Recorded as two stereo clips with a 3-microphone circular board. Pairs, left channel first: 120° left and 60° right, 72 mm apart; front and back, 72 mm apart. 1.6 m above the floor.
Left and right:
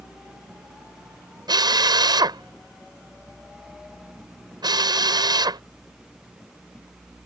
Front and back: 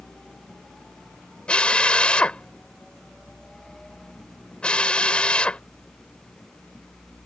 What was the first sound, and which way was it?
A drill, 75° right.